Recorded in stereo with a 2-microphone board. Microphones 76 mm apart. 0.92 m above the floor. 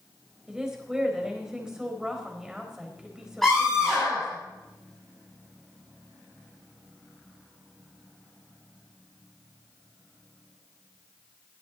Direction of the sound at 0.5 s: 10° right (ahead or behind).